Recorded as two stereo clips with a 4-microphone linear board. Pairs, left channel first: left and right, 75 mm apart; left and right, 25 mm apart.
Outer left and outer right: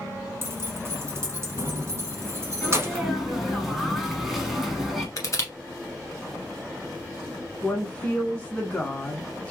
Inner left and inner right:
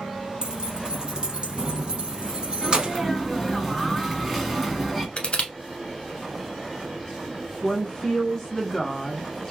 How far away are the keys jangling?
About 0.8 m.